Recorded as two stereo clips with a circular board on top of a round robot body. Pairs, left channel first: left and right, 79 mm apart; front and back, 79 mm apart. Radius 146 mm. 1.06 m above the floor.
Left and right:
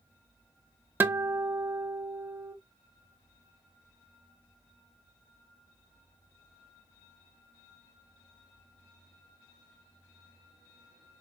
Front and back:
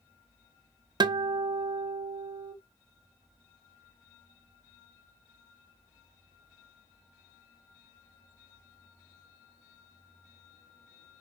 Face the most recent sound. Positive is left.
turn(degrees=-155)